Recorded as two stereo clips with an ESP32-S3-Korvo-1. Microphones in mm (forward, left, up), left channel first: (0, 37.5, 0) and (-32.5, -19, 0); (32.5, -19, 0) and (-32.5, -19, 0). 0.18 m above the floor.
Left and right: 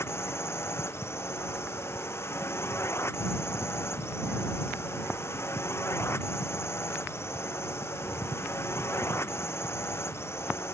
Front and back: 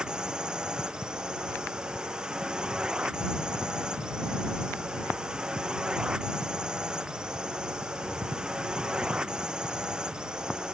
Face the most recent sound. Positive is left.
turn(degrees=105)